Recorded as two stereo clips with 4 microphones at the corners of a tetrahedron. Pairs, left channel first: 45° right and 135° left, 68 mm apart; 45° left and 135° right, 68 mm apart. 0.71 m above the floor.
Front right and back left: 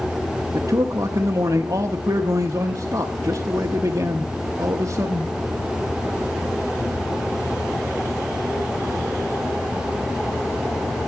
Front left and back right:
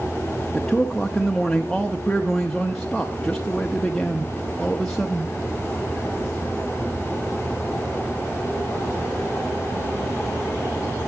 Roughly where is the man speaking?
Behind left.